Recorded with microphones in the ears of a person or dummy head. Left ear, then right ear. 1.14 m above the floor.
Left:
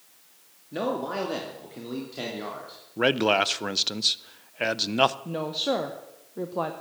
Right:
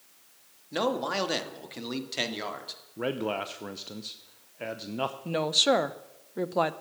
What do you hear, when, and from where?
0.7 s a man speaking: 40° right (ahead or behind), 2 m; by 2.8 s 65° right (ahead or behind), 3 m
3.0 s a man speaking: 50° left (ahead or behind), 0.6 m
5.2 s a woman speaking: 55° right (ahead or behind), 0.7 m